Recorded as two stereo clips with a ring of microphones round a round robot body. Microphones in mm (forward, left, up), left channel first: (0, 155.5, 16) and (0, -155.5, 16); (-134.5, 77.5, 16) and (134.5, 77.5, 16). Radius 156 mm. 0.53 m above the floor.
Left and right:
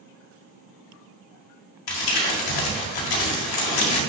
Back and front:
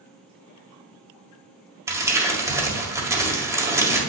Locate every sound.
1.9 s crumpling: 80° left, 1.8 m